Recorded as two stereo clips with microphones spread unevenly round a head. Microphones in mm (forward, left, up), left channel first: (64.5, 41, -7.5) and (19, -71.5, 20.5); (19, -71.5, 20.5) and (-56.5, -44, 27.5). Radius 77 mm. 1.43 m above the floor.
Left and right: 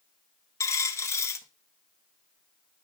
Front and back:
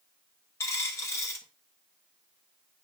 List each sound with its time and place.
0.6 s a dropped coin: straight ahead, 0.8 m